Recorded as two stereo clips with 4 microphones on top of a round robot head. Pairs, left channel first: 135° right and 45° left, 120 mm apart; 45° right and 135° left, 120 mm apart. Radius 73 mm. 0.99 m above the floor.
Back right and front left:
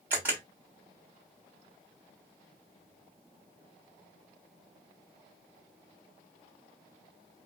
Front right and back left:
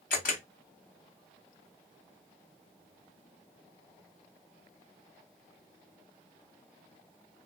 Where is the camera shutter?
30° right, 1.3 m.